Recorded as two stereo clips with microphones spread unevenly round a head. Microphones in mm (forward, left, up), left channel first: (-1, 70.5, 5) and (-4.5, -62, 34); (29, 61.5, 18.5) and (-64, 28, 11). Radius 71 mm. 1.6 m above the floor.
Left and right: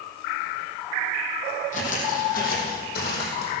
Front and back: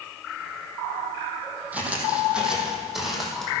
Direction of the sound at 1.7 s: 125° left.